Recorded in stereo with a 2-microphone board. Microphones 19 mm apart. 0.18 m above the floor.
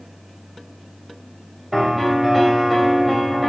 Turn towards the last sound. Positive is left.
turn(degrees=0)  # may be behind; listen again after turning